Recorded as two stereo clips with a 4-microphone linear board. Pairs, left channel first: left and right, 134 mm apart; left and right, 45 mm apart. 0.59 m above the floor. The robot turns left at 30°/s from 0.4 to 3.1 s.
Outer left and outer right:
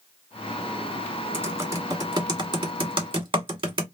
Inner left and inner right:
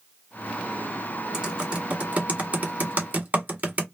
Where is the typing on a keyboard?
15° right (ahead or behind), 1.2 m; by 3.9 s 40° right (ahead or behind), 1.2 m.